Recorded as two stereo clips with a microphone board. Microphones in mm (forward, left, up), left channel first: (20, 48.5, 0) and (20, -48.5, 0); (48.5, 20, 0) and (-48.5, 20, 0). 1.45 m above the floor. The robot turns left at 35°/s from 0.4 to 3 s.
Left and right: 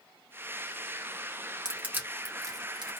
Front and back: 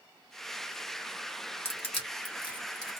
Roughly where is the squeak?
No squeak in this recording.